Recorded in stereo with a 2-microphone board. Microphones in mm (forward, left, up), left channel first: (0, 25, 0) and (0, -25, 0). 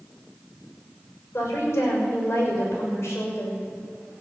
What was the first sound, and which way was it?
A woman speaking, 60° left (ahead or behind).